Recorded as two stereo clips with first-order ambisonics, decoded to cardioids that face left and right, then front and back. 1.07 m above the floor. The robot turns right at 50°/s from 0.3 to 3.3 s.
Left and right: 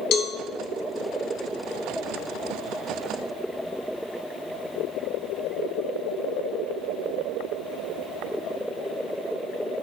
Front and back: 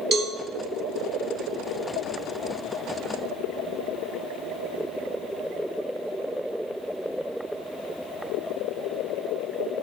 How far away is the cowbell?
About 0.8 m.